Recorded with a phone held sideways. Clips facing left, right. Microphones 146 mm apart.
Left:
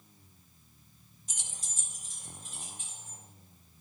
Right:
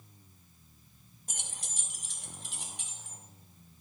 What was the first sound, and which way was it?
Keys jangling, 55° right (ahead or behind).